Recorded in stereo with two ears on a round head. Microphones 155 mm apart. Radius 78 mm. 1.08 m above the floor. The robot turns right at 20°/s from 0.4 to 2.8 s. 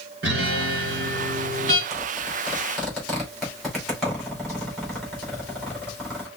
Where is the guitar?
60° right (ahead or behind), 3.5 m; by 1.8 s 35° right (ahead or behind), 3.5 m.